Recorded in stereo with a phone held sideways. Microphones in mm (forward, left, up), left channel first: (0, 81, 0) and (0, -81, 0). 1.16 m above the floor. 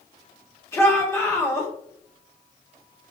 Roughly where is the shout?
Centre.